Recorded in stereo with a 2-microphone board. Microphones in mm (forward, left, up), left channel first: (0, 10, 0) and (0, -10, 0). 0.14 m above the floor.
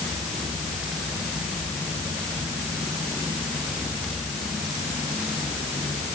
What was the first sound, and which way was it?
Only background noise.